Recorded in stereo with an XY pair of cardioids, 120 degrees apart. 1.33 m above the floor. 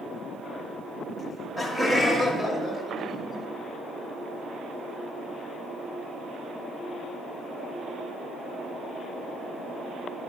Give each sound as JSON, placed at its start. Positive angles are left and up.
{"t": 1.2, "sound": "laughter", "azimuth_deg": 5, "distance_m": 1.3}